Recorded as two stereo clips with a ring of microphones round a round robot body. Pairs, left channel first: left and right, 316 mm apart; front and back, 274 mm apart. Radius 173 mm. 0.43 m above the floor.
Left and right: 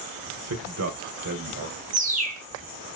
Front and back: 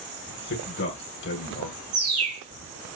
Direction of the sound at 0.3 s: 50° right.